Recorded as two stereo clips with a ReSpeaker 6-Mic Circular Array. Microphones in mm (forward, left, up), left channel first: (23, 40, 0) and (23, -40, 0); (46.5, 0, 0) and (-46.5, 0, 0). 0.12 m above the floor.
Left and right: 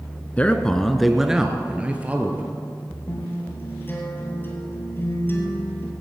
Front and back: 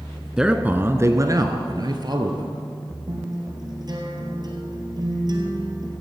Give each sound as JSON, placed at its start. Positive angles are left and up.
{"t": 0.4, "sound": "a man speaking", "azimuth_deg": 110, "distance_m": 1.1}
{"t": 3.1, "sound": "a guitar", "azimuth_deg": 150, "distance_m": 2.5}